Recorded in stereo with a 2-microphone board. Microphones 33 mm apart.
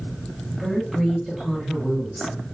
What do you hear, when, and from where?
0.5 s a woman speaking: 5° left (ahead or behind), 2.0 m